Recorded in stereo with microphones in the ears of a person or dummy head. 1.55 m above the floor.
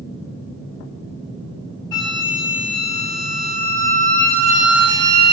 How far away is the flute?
About 0.8 m.